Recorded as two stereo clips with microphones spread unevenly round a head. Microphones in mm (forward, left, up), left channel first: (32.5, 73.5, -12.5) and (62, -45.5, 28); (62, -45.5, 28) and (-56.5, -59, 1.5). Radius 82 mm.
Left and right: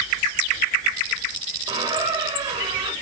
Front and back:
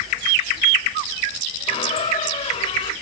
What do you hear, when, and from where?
1.7 s a squeak: 30° right, 4.5 m